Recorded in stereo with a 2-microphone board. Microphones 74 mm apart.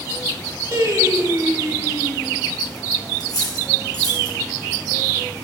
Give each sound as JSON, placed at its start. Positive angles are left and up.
{"t": 0.7, "sound": "singing", "side_deg": -55, "distance_m": 3.0}
{"t": 3.2, "sound": "cutlery clinking", "side_deg": 60, "distance_m": 2.5}